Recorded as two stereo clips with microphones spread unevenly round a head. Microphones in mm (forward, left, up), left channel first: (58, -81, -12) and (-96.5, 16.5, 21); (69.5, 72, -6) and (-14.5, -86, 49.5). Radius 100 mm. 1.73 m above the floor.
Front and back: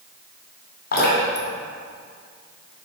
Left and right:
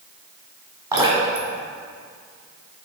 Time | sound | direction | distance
0.9 | dripping | 65° right | 2.5 m